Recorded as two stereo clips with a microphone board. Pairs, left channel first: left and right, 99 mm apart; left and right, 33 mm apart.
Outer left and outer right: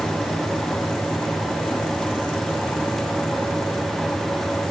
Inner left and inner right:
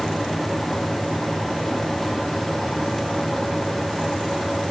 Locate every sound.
Only background noise.